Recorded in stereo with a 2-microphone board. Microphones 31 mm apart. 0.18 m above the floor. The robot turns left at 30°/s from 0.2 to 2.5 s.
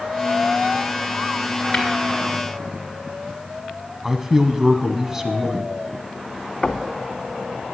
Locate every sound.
1.7 s tapping: 10° left (ahead or behind), 3.5 m; by 1.9 s 5° left (ahead or behind), 3.5 m
4.0 s a man speaking: 15° right (ahead or behind), 1.0 m
6.6 s knocking: 35° left (ahead or behind), 0.8 m